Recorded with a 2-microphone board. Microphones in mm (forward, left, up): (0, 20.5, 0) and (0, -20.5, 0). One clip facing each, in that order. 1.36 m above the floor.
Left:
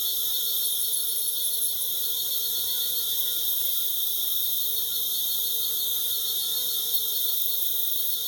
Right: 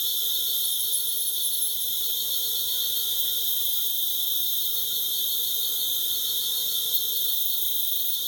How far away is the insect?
About 3 m.